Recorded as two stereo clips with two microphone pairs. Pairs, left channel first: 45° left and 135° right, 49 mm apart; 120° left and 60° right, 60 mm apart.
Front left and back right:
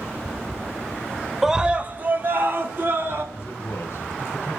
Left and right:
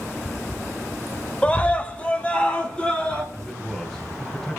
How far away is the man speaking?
About 2 m.